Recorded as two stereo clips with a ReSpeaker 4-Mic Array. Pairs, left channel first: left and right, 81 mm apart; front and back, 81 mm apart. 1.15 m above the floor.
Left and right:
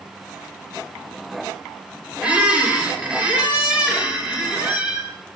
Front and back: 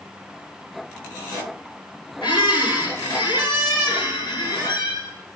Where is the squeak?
15° right, 2.5 m.